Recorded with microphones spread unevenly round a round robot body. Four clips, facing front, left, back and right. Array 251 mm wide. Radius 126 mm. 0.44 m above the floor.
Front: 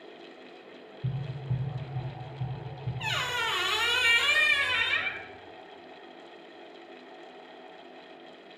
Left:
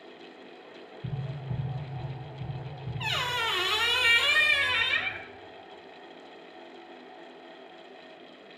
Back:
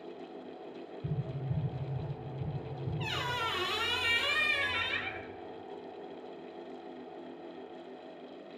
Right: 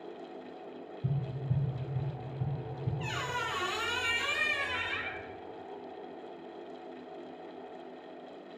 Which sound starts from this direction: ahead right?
Tapping, at 1.0 s.